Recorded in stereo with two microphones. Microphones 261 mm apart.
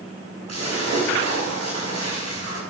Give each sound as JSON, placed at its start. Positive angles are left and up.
{"t": 0.5, "sound": "a splash", "side_deg": -80, "distance_m": 5.5}